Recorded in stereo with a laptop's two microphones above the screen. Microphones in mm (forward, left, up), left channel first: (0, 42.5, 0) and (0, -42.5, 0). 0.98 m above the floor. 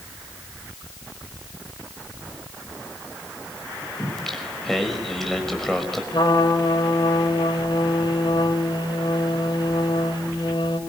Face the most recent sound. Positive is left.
turn(degrees=60)  # may be behind; listen again after turning